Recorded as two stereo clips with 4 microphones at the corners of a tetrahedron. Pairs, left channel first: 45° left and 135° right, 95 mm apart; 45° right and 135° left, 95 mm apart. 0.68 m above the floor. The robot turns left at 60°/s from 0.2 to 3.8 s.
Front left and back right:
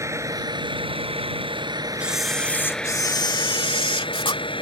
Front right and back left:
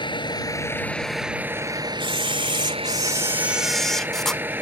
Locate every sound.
0.0 s a vehicle: 80° right; by 4.6 s 65° left
2.0 s a camera shutter: 150° left; by 4.4 s 40° left